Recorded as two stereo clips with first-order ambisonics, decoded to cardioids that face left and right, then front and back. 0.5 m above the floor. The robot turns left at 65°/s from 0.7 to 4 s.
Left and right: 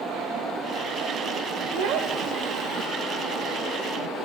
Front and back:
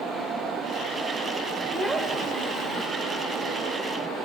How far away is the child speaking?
About 1.3 m.